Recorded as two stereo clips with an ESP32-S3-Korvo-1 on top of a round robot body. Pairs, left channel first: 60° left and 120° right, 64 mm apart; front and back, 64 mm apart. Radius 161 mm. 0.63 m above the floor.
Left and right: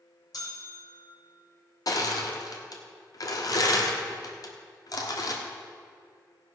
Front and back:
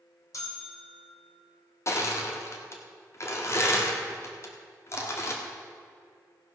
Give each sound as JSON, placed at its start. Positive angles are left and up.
{"t": 0.3, "sound": "a bell", "azimuth_deg": 35, "distance_m": 3.0}
{"t": 1.9, "sound": "crushing", "azimuth_deg": 45, "distance_m": 1.6}